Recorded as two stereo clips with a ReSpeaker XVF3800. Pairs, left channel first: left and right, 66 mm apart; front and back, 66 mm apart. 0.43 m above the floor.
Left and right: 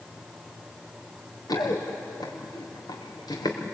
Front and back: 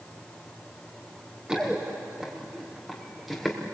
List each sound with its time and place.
1.5 s running footsteps: 105° left, 4.5 m; by 3.6 s 90° left, 4.5 m